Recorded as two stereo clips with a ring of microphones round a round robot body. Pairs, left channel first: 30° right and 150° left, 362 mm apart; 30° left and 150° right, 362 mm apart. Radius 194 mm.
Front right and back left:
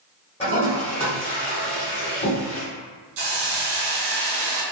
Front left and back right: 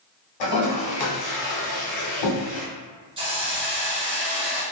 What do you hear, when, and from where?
0.4 s a toilet flushing: 45° left, 1.5 m
3.2 s a hiss: 135° left, 0.9 m